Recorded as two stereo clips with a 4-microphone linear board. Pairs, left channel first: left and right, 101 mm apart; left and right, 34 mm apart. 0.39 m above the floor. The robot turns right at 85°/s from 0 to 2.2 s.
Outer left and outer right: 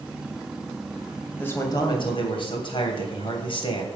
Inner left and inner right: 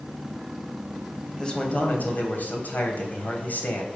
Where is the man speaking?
20° left, 3 m; by 4.0 s 90° left, 3 m.